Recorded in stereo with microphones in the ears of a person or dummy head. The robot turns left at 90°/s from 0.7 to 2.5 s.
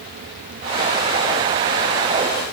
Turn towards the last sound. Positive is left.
No sound to turn to.